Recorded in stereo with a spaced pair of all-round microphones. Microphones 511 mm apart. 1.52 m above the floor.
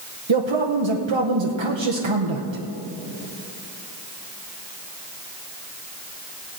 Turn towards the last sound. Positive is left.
turn(degrees=-60)  # may be behind; listen again after turning